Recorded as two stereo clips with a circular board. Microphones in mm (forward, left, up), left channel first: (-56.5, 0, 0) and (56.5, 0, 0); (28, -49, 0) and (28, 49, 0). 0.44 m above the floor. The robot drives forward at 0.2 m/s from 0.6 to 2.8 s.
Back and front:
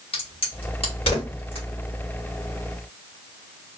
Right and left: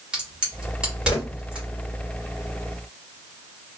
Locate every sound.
0.1 s a crack: 165° left, 1.9 m; by 1.6 s 170° left, 2 m